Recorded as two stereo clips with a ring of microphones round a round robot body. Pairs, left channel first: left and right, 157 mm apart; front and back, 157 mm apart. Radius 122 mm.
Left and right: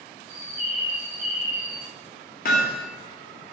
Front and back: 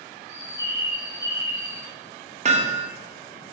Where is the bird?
105° right, 2.5 m.